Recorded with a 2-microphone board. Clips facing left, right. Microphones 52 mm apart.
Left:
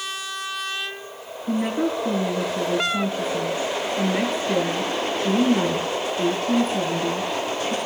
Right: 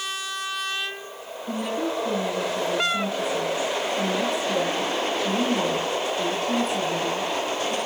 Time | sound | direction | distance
1.5 | a woman speaking | 40° left (ahead or behind) | 7 m